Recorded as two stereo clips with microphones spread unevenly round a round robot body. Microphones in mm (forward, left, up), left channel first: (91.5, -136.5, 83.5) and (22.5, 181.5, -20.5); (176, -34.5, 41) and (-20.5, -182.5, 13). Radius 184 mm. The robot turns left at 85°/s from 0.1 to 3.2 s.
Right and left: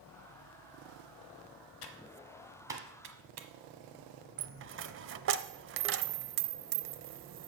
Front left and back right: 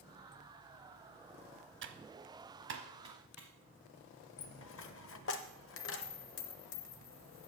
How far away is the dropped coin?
About 0.5 m.